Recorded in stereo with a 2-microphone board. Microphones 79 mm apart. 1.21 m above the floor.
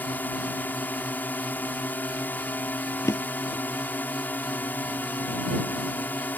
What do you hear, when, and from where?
0.0 s a drone: 25° left (ahead or behind)
3.0 s a drawer: 40° left (ahead or behind)